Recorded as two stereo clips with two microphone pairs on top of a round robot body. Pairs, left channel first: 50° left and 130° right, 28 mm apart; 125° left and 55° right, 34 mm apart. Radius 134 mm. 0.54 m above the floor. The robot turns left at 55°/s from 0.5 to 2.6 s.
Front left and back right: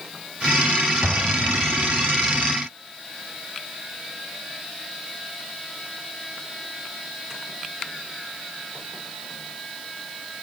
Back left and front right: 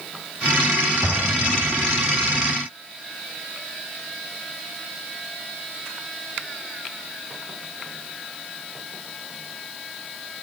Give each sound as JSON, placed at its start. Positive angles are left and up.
{"t": 1.0, "sound": "an explosion", "azimuth_deg": -90, "distance_m": 3.5}